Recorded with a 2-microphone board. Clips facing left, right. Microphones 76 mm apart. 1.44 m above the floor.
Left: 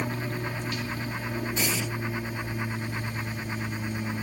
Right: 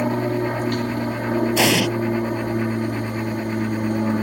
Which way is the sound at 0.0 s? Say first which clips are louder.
Right 11 dB; 50° right (ahead or behind).